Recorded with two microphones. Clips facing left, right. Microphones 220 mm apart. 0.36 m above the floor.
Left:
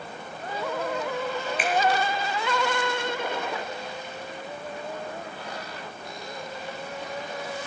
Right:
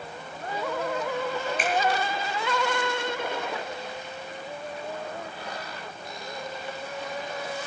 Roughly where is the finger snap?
Right.